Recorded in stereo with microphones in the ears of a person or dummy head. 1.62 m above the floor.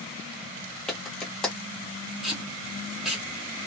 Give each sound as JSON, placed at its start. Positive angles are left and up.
{"t": 0.9, "sound": "a clap", "side_deg": 5, "distance_m": 1.4}
{"t": 2.2, "sound": "tape being pulled", "side_deg": 0, "distance_m": 1.5}